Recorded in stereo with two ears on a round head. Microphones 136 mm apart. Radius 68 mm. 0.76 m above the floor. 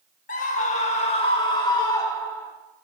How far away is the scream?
About 1.6 m.